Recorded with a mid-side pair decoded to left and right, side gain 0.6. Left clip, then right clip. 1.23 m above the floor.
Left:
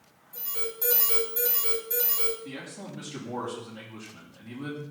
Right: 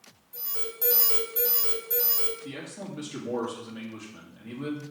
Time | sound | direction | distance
0.3 | an alarm | 10° right | 3 m
2.5 | a man speaking | 25° right | 3 m